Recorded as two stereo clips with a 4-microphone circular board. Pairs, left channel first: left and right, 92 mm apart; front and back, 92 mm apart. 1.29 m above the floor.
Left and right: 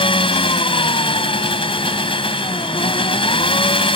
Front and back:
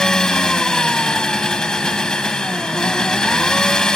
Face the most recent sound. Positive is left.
turn(degrees=85)